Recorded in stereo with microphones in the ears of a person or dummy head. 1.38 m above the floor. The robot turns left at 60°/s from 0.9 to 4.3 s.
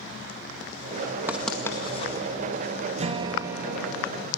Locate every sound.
1.3 s writing: 10° right (ahead or behind), 1.9 m; by 2.1 s 40° left (ahead or behind), 1.9 m
3.0 s a guitar: 135° right, 1.0 m; by 4.3 s 150° left, 1.0 m